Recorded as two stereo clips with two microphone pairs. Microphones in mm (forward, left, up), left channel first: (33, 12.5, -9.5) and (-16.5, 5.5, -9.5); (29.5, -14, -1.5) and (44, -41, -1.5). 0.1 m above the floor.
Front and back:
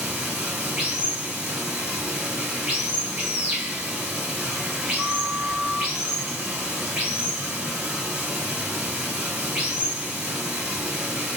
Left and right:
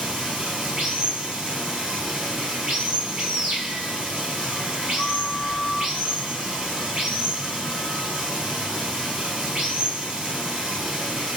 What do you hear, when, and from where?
0.0 s running water: 115° right, 2 m
5.0 s a flute: 75° right, 1.7 m